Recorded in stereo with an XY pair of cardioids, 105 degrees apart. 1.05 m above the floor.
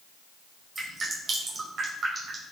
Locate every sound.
0.8 s dripping: 45° right, 5 m